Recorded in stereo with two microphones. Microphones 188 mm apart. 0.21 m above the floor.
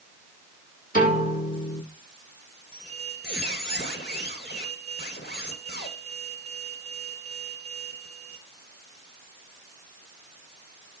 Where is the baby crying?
I don't hear a baby crying.